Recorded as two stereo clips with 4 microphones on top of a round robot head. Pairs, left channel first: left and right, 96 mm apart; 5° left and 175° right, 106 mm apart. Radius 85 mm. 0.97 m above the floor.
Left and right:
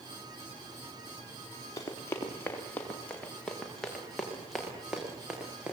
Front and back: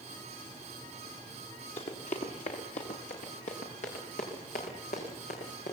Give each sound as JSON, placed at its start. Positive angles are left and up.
{"t": 1.8, "sound": "running footsteps", "azimuth_deg": 30, "distance_m": 5.5}